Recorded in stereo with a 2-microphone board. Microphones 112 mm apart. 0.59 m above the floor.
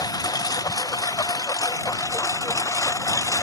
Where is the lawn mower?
35° left (ahead or behind); by 3.4 s 30° left (ahead or behind).